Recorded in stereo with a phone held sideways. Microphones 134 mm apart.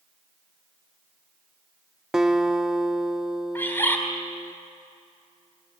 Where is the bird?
15° left (ahead or behind), 4.5 m.